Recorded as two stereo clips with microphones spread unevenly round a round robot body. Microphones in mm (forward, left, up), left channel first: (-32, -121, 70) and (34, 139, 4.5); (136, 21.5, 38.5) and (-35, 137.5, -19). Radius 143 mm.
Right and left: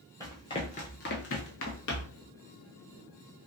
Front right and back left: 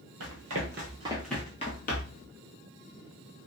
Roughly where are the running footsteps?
Behind.